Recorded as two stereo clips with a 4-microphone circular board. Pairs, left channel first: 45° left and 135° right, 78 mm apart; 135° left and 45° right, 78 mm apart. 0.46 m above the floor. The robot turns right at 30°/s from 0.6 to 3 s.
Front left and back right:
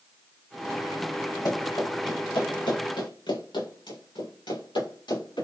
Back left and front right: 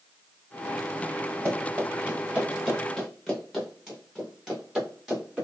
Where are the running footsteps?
5° left, 4.5 m; by 5.5 s 35° left, 7.5 m.